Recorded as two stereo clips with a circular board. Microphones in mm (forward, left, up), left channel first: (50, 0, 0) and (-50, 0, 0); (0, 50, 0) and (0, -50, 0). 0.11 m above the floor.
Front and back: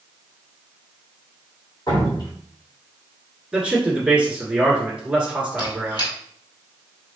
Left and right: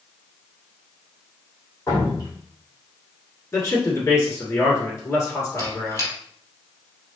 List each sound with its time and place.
1.9 s dripping: 35° left, 2 m
3.5 s a man speaking: 110° left, 1.5 m
5.6 s a squeak: 35° left, 1.6 m